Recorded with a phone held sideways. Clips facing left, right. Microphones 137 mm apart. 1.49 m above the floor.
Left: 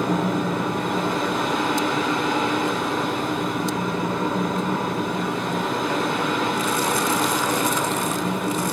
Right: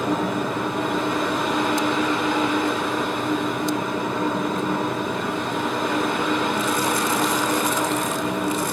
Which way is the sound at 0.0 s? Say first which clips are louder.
Left 1 dB; centre (ahead or behind).